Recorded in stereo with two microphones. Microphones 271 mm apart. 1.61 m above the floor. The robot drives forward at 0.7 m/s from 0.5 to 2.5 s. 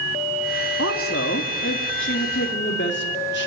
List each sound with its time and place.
0.8 s a woman speaking: 55° left (ahead or behind), 3 m; by 3.5 s 40° left (ahead or behind), 4 m